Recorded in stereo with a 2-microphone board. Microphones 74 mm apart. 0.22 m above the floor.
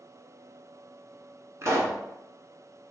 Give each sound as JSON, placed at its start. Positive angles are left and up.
{"t": 1.6, "sound": "a pop", "side_deg": -45, "distance_m": 0.7}